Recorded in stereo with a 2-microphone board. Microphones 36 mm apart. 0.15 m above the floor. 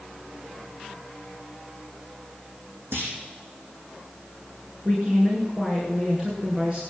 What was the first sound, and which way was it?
A clunk, 75° right (ahead or behind).